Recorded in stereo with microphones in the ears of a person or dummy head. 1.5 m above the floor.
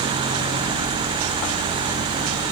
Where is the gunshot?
No gunshot in this recording.